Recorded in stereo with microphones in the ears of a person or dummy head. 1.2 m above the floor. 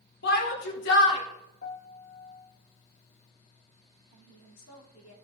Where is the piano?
45° left (ahead or behind), 1.0 m.